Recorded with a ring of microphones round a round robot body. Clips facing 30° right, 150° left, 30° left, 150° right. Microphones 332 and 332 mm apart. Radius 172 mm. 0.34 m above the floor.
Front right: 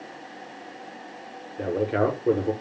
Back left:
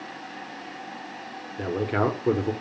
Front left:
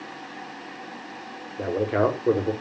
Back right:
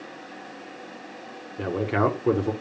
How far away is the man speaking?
About 1.0 m.